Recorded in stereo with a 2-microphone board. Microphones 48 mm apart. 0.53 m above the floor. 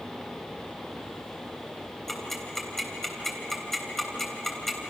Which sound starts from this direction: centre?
Ticking, at 2.1 s.